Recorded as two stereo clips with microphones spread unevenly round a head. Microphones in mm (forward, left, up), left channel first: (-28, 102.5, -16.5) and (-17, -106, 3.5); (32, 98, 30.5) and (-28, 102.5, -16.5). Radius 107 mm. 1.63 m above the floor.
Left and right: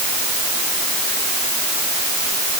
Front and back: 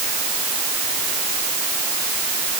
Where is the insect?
No insect in this recording.